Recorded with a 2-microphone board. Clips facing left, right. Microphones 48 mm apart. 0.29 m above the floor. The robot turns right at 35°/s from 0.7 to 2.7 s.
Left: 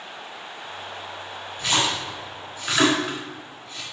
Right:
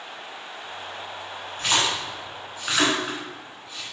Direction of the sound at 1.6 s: 45° right (ahead or behind).